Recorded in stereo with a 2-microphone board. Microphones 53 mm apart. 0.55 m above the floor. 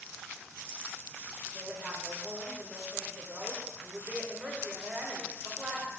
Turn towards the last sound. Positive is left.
turn(degrees=-25)  # may be behind; listen again after turning